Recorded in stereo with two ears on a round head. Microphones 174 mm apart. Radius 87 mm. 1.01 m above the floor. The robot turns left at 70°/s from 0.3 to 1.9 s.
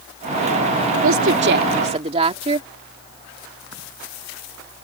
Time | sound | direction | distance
1.0 | a woman speaking | 85° right | ?